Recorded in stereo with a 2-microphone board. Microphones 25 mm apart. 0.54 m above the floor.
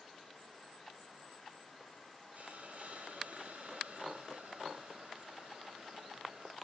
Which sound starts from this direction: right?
A hiss, at 2.3 s.